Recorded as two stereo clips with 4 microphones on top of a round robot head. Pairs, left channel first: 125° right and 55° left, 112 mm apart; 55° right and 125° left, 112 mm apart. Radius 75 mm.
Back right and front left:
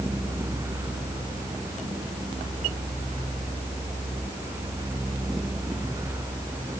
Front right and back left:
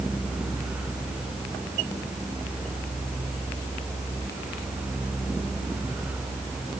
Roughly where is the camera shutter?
No camera shutter in this recording.